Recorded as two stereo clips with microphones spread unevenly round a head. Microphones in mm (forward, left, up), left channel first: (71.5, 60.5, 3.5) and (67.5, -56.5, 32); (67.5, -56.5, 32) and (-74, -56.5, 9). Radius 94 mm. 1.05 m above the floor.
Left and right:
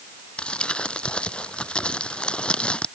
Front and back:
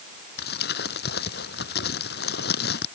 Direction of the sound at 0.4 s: 5° left.